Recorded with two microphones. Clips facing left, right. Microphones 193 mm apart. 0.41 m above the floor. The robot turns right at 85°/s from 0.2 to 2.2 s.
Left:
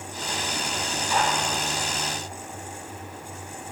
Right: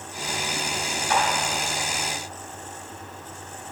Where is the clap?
65° right (ahead or behind), 2.5 m; by 1.2 s 55° right (ahead or behind), 2.5 m.